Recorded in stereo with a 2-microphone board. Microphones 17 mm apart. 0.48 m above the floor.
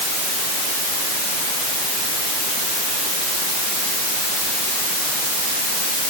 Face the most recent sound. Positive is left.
No sound to turn to.